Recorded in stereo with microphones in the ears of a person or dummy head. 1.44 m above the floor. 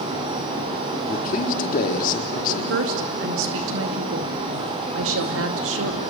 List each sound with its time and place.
1.1 s a man speaking: 50° left (ahead or behind), 3.5 m
2.5 s a woman speaking: 80° right, 2 m